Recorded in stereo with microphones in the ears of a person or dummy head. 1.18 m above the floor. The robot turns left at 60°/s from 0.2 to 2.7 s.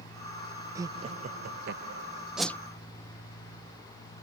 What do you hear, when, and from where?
0.8 s laughter: 20° right; by 2.3 s 110° right
2.4 s a whoosh: centre (ahead or behind); by 2.6 s 10° left (ahead or behind)